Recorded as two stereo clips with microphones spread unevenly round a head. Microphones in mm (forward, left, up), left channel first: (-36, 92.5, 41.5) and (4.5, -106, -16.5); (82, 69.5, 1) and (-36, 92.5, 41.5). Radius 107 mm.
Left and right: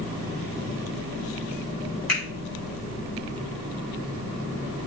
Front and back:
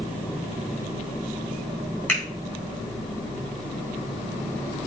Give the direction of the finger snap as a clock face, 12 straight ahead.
10 o'clock.